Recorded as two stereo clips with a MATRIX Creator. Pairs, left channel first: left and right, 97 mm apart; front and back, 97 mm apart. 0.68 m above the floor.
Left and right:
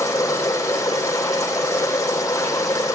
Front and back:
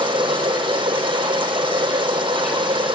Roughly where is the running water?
Behind left.